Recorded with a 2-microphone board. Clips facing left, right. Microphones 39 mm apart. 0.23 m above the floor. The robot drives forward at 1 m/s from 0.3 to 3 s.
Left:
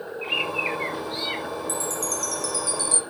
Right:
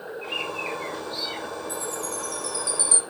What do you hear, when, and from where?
0.2 s a bird: 40° left (ahead or behind), 5 m; by 1.4 s 45° left (ahead or behind), 4.5 m
1.7 s a chime: 75° left (ahead or behind), 3 m; by 3.0 s 60° left (ahead or behind), 3.5 m